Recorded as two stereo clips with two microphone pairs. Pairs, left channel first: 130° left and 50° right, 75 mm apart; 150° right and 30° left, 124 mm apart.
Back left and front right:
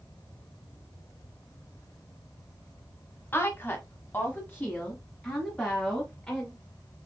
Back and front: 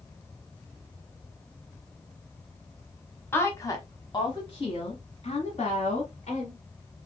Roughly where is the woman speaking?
Behind left.